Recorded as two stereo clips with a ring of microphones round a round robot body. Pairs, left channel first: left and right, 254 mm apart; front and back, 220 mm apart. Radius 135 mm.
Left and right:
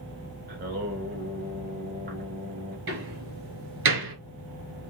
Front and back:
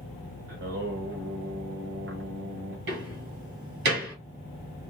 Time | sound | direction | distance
0.5 | singing | 140° right | 1.8 m
2.9 | a door slam | 130° right | 2.5 m